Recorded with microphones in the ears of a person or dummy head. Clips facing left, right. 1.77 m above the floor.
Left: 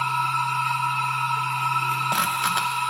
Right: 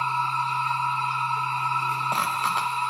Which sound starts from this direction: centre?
A machine running, at 0.0 s.